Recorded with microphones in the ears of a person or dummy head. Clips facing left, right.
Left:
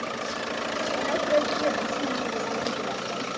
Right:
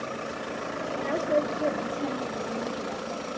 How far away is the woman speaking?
About 6.5 m.